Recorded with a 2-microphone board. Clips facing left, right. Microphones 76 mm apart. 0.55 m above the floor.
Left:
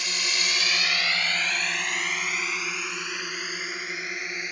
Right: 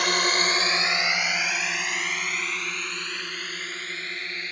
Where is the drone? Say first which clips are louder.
Right 8 dB; 60° right (ahead or behind); by 4.5 s 15° left (ahead or behind).